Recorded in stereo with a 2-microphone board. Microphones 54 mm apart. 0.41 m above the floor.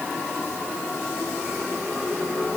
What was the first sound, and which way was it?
Only background noise.